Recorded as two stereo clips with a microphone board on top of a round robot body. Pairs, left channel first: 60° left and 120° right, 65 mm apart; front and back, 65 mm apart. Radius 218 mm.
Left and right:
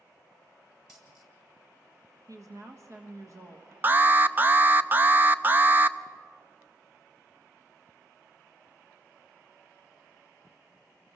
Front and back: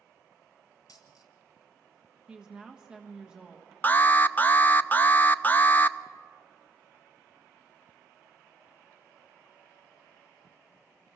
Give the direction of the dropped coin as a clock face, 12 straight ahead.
1 o'clock.